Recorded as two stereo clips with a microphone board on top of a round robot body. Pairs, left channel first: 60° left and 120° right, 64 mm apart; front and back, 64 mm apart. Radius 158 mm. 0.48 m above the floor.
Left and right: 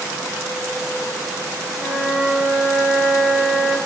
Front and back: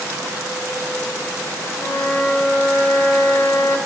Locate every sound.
1.8 s a flute: 55° right, 3 m